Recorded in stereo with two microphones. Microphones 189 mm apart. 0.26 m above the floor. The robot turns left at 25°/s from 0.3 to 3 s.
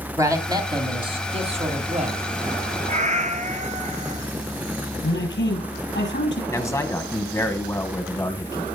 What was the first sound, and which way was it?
A man speaking, 25° right.